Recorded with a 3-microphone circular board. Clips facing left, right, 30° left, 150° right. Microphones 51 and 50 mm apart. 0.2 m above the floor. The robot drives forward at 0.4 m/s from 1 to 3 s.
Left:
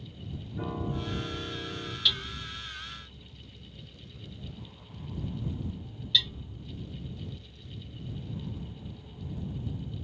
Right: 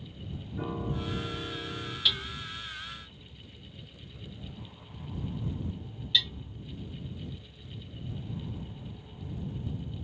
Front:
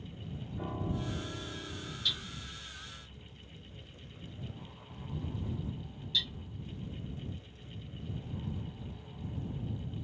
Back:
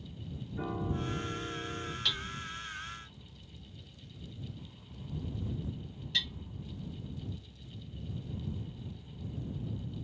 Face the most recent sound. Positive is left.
turn(degrees=-170)